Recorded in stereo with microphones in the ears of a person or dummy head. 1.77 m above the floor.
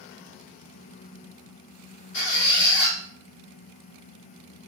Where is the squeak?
65° left (ahead or behind), 1.6 m.